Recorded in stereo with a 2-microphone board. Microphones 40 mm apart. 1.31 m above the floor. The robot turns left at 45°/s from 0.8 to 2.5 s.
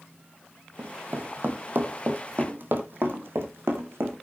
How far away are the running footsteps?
About 2 m.